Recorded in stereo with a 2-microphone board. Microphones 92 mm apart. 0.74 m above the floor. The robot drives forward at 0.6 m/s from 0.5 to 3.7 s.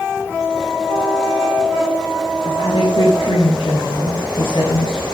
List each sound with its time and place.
2.4 s a woman speaking: 80° left, 7 m